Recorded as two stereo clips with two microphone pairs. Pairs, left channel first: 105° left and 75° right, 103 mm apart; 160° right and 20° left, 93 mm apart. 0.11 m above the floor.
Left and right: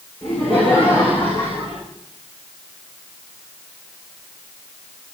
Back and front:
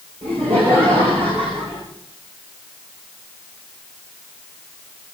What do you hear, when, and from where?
0.2 s laughter: 30° left, 9 m; by 1.8 s 35° left, 9.5 m